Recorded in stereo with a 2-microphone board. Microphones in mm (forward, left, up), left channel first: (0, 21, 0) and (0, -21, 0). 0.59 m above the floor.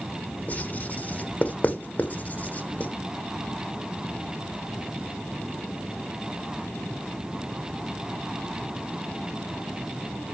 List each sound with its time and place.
0.5 s writing: 40° left (ahead or behind), 1.4 m